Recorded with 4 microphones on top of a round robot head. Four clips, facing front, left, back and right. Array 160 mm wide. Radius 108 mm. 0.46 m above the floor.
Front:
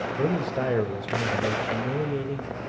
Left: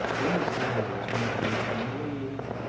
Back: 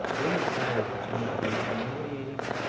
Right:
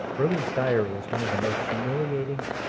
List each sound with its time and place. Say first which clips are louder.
0.2 s a man speaking: right 6 dB, front 3 dB; 65° right, 2.5 m